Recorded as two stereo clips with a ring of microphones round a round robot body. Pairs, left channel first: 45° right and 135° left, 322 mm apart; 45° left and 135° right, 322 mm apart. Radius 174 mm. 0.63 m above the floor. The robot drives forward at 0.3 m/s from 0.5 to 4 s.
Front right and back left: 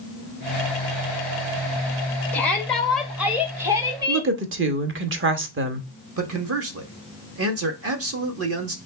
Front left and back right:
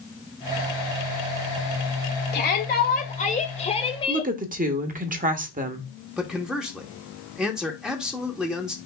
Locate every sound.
2.3 s a shout: 35° left, 1.3 m; by 4.3 s 80° left, 1.2 m
4.1 s a woman speaking: 170° left, 0.9 m
6.2 s a man speaking: 140° left, 1.2 m